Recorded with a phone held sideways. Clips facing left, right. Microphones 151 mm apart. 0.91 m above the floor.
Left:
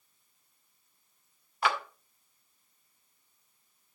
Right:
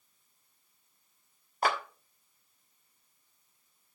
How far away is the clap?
About 1.3 m.